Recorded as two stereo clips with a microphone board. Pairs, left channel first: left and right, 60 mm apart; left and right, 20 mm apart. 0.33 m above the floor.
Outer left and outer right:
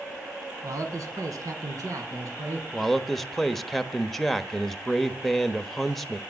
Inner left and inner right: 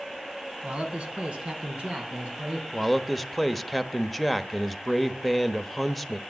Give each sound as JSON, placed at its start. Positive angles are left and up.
{"t": 0.6, "sound": "a man speaking", "side_deg": -60, "distance_m": 3.0}
{"t": 2.7, "sound": "a man speaking", "side_deg": 5, "distance_m": 0.9}